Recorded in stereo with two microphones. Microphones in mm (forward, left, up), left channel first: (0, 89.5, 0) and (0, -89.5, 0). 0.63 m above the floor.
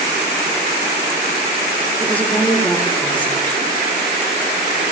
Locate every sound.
2.0 s a woman speaking: 10° left (ahead or behind), 2 m